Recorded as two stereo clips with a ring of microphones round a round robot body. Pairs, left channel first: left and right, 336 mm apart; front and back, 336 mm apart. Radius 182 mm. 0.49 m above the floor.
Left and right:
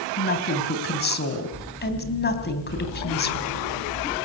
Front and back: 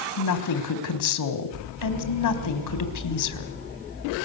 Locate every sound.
0.2 s a woman speaking: 30° left, 3.5 m